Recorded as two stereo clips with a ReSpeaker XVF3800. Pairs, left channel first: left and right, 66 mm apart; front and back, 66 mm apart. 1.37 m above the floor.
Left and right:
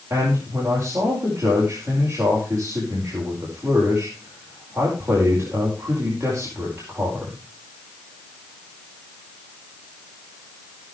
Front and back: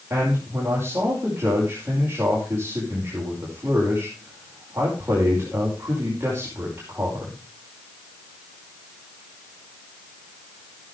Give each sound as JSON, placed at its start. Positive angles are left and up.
{"t": 0.1, "sound": "a man speaking", "azimuth_deg": -125, "distance_m": 5.5}